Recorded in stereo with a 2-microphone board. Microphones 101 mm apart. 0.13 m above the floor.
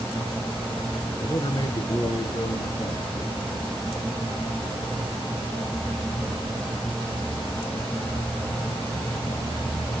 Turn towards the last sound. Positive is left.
turn(degrees=40)  # may be behind; listen again after turning